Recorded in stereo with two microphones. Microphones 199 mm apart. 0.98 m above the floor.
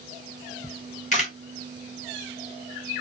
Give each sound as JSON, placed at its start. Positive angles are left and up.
{"t": 0.6, "sound": "a camera shutter", "side_deg": 35, "distance_m": 1.1}